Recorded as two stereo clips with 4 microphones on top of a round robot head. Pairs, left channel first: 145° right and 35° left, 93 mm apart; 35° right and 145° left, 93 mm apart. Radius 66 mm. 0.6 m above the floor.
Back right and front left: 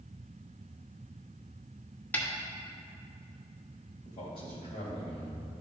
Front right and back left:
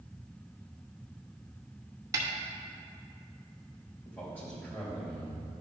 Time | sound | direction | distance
2.1 | a snare drum | 155° left | 1.4 m
4.0 | a man speaking | 110° right | 3 m